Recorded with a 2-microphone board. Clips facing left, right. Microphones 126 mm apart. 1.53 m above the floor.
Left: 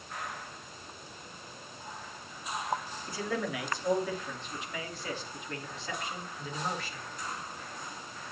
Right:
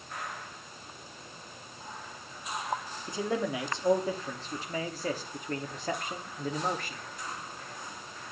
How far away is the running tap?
No running tap in this recording.